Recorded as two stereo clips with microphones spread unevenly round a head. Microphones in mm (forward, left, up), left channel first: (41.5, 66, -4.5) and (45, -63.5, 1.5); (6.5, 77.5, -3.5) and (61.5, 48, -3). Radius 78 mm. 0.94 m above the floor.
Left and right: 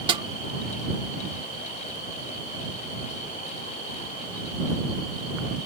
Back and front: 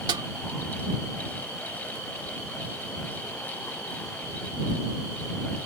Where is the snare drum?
35° right.